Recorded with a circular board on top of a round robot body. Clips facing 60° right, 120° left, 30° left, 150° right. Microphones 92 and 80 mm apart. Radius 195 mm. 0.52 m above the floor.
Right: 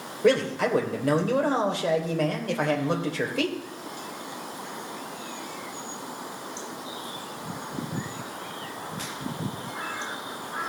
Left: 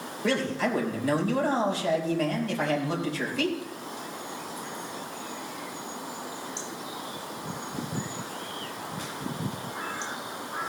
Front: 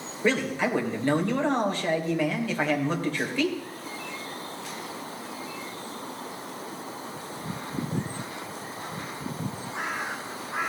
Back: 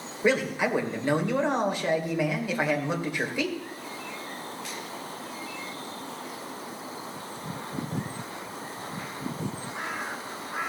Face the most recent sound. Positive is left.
turn(degrees=-75)